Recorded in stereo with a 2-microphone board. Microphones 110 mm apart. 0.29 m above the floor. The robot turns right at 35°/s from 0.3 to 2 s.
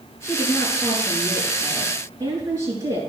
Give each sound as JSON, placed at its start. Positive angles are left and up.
{"t": 0.2, "sound": "a woman speaking", "azimuth_deg": 150, "distance_m": 5.0}